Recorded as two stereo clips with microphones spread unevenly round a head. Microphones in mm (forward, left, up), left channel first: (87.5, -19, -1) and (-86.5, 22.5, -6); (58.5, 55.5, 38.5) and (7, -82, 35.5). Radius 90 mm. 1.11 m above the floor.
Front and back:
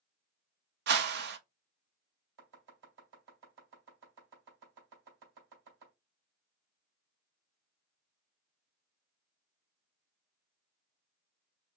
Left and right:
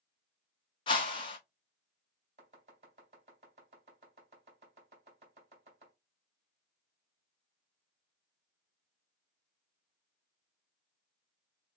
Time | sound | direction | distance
0.9 | a whoosh | 130° left | 0.7 m
2.4 | chopping | 165° right | 2.5 m